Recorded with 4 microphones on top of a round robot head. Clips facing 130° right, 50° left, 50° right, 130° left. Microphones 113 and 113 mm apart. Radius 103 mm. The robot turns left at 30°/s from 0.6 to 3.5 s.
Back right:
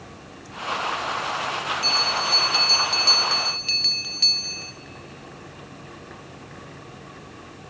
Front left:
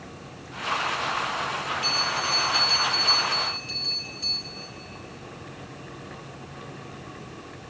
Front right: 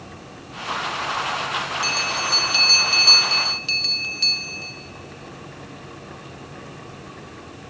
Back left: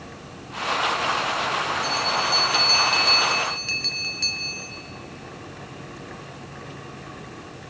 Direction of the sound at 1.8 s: 75° right.